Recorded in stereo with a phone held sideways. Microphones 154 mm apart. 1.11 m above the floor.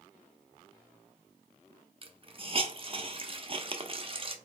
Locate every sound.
2.0 s a hiss: 40° right (ahead or behind), 0.8 m